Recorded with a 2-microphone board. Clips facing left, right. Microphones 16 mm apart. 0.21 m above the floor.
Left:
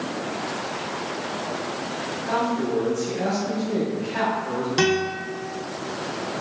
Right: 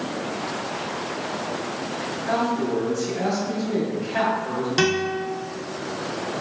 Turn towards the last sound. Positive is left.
turn(degrees=-15)  # may be behind; listen again after turning